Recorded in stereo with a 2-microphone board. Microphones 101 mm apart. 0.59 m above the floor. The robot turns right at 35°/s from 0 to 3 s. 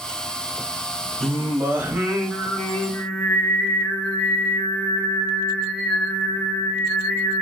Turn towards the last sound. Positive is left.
turn(degrees=25)